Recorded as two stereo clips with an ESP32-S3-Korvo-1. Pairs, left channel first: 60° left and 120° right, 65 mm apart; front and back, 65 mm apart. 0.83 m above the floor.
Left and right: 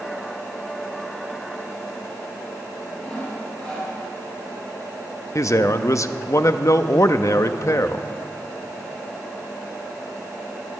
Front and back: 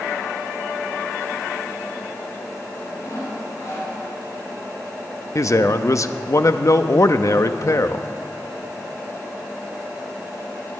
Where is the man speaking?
30° left, 0.6 m.